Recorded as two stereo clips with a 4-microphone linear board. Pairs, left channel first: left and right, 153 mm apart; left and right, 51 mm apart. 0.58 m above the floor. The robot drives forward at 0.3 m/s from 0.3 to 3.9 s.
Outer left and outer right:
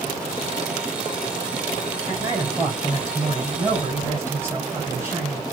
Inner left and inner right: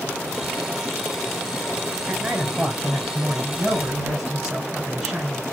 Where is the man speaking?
20° right (ahead or behind), 4.5 m; by 5.4 s 15° right (ahead or behind), 5 m.